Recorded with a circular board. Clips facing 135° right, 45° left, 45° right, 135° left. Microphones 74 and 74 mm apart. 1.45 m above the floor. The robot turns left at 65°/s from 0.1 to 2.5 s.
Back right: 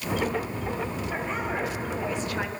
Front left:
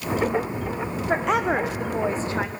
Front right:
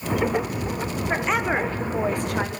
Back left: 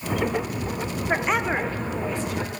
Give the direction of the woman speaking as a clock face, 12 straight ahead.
10 o'clock.